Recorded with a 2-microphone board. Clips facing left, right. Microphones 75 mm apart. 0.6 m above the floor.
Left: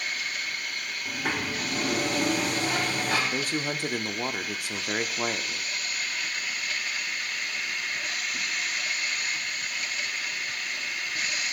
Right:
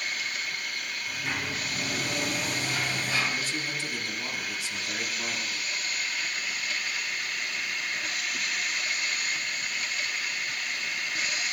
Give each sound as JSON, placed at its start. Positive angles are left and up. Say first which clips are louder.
{"t": 1.1, "sound": "a sliding door", "louder": "left 4 dB", "side_deg": 80, "distance_m": 4.0}
{"t": 3.3, "sound": "a man speaking", "louder": "left 3 dB", "side_deg": 50, "distance_m": 0.8}